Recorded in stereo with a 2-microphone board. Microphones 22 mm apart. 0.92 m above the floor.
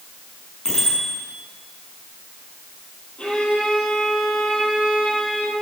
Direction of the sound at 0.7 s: 20° left (ahead or behind).